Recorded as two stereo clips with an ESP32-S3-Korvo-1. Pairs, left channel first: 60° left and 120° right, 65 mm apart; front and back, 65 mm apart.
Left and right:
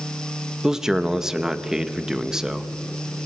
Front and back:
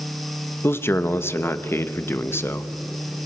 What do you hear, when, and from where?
0.6 s a man speaking: 40° right, 1.1 m